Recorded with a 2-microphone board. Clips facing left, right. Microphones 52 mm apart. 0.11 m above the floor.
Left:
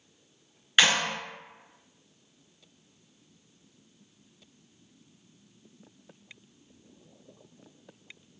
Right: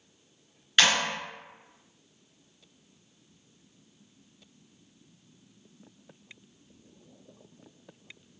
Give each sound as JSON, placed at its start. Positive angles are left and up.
{"t": 0.8, "sound": "a clap", "side_deg": 10, "distance_m": 1.2}